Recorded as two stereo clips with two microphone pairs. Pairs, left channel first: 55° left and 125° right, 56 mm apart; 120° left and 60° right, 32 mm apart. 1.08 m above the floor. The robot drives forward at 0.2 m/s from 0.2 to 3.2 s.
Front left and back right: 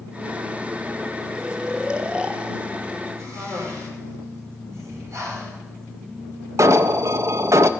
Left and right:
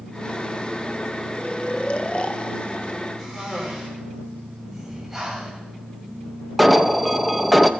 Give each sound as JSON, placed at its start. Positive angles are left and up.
{"t": 1.4, "sound": "snoring", "azimuth_deg": 160, "distance_m": 0.6}
{"t": 3.2, "sound": "a cough", "azimuth_deg": -150, "distance_m": 4.0}
{"t": 4.7, "sound": "breathing", "azimuth_deg": -145, "distance_m": 2.5}
{"t": 6.6, "sound": "an alarm", "azimuth_deg": -155, "distance_m": 0.5}